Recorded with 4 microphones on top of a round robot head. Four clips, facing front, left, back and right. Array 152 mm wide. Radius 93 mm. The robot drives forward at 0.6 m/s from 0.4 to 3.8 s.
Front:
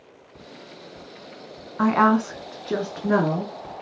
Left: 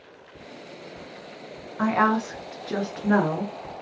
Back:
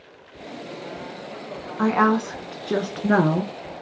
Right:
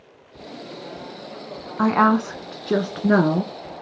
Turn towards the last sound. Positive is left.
turn(degrees=-140)